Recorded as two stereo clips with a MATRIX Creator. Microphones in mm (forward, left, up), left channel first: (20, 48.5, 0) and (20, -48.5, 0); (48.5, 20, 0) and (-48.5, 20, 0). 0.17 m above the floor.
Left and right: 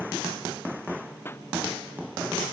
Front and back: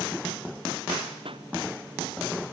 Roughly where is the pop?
Behind left.